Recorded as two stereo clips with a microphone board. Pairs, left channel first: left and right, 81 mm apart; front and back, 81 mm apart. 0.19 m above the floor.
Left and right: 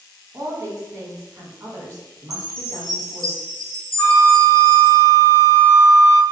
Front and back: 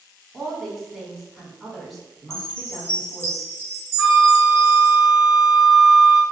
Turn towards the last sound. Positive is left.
turn(degrees=100)